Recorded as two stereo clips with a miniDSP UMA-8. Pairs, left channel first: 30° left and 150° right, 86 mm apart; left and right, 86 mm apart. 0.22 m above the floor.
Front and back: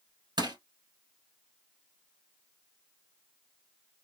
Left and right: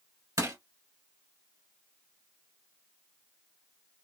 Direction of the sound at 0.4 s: 135° right.